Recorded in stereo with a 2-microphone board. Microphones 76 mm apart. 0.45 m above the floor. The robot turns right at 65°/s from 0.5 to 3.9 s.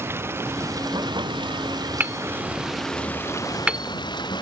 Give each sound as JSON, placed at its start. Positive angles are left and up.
{"t": 0.0, "sound": "running water", "azimuth_deg": -150}
{"t": 2.0, "sound": "hammering", "side_deg": -25}